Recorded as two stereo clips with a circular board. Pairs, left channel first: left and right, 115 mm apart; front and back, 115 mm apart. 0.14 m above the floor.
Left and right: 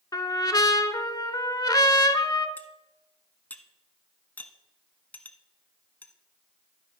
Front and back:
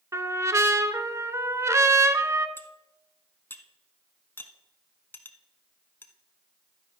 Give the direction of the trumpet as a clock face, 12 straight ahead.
8 o'clock.